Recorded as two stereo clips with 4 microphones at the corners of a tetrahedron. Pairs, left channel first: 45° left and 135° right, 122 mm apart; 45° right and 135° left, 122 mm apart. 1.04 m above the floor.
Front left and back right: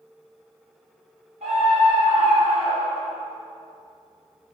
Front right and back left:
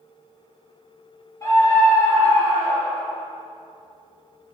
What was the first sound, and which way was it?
A scream, 110° right.